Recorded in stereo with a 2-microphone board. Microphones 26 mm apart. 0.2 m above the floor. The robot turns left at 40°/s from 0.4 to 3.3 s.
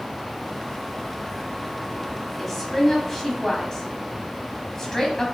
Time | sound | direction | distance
2.4 | a woman speaking | 5° left (ahead or behind) | 1.0 m